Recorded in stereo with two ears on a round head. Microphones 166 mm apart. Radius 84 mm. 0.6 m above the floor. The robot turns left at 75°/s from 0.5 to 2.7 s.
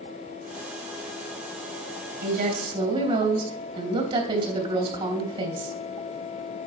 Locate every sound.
2.2 s a woman speaking: 110° right, 3.5 m; by 5.8 s 150° right, 3.5 m